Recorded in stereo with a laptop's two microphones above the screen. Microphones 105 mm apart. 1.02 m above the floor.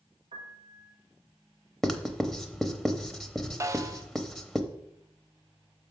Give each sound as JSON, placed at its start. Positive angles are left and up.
{"t": 0.3, "sound": "a piano", "side_deg": -65, "distance_m": 1.2}
{"t": 1.8, "sound": "writing", "side_deg": 0, "distance_m": 0.8}
{"t": 3.6, "sound": "a snare drum", "side_deg": -30, "distance_m": 0.5}